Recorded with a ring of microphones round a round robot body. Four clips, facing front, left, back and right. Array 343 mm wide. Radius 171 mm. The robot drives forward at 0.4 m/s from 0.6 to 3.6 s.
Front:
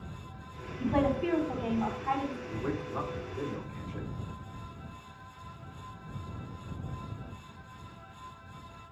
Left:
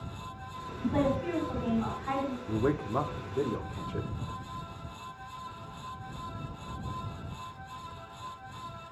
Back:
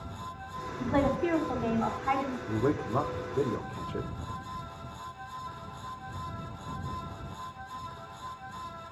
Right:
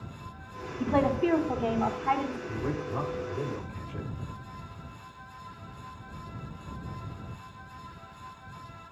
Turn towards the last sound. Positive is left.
turn(degrees=150)